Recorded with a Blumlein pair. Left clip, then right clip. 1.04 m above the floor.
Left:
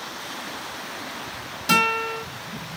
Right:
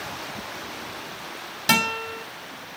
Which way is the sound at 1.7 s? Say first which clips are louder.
Left 2 dB; 65° right.